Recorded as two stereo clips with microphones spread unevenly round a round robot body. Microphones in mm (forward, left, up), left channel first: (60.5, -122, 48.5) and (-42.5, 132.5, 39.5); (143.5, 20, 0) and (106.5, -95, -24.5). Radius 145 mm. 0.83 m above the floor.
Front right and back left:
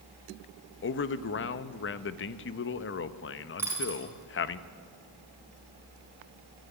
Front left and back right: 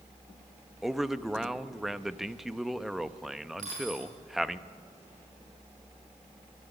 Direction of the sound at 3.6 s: 165° right.